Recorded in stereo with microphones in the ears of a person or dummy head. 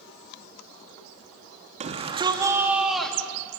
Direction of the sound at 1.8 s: 40° right (ahead or behind).